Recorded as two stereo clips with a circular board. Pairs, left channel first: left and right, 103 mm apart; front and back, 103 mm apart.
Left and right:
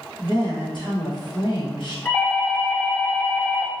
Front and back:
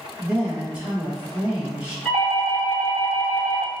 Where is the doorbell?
85° left, 1.5 m.